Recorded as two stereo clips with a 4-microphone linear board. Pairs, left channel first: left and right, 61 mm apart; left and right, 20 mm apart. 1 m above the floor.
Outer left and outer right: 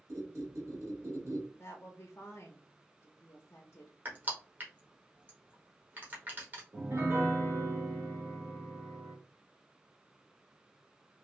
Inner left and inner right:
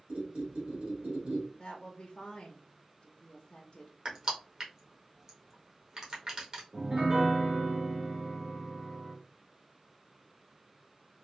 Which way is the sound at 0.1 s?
55° right (ahead or behind).